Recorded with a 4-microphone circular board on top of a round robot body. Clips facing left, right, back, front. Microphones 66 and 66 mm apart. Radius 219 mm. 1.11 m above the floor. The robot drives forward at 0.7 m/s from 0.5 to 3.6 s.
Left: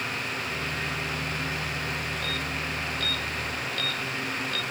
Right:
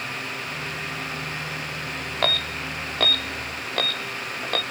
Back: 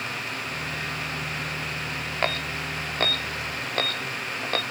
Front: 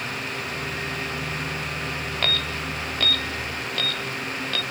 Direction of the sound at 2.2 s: 115° right.